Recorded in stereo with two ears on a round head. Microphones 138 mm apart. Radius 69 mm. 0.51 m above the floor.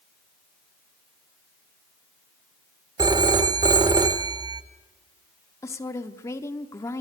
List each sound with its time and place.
3.0 s a phone ringing: 25° right (ahead or behind), 0.8 m
5.6 s a woman speaking: 20° left (ahead or behind), 0.9 m